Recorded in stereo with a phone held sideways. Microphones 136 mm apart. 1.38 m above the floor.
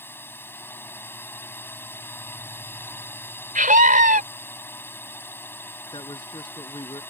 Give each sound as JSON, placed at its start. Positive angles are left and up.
{"t": 0.0, "sound": "a drone", "side_deg": 15}
{"t": 3.5, "sound": "a scream", "side_deg": -80}
{"t": 5.9, "sound": "a man speaking", "side_deg": 35}